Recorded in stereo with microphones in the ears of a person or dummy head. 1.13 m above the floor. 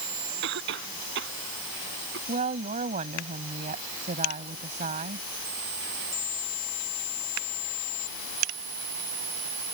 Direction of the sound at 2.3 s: 40° right (ahead or behind).